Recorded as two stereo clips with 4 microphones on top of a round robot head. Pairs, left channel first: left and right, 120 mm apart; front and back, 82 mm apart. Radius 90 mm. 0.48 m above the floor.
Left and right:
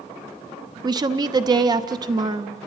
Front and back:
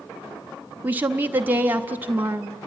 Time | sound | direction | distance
0.8 | a woman speaking | 120° right | 0.8 m